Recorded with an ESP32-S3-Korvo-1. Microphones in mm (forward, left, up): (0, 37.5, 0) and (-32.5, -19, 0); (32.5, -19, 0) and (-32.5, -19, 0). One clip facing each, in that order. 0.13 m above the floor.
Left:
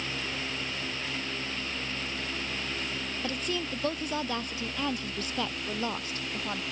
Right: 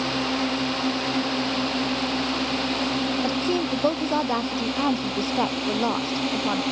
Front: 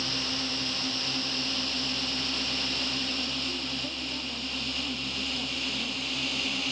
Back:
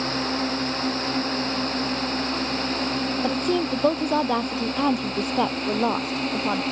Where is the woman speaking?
Straight behind.